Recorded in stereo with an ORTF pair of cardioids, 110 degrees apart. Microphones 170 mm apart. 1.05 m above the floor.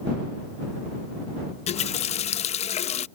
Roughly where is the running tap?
Ahead left.